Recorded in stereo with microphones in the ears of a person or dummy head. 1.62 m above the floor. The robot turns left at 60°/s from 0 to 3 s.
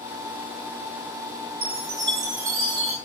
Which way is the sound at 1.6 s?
75° right.